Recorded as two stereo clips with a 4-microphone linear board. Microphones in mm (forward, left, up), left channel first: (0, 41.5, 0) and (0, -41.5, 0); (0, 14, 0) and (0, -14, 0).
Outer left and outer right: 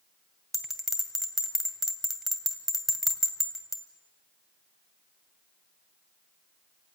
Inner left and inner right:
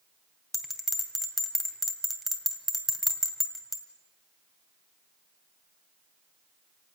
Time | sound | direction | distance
0.5 | a bell | centre (ahead or behind) | 2 m